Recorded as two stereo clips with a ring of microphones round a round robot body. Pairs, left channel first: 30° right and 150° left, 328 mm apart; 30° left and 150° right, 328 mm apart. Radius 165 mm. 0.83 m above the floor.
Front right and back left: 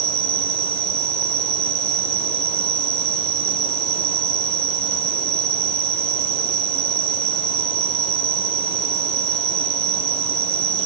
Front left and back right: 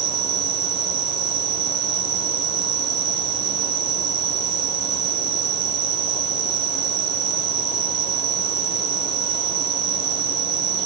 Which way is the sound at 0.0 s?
165° right.